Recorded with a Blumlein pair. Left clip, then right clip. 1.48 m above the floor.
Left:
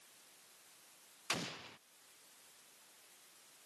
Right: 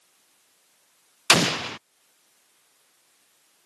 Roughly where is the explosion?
Ahead right.